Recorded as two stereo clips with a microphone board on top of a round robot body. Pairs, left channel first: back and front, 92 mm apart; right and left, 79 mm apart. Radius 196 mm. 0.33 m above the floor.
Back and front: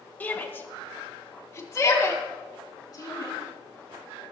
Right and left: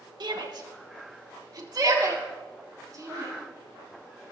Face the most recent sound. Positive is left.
turn(degrees=130)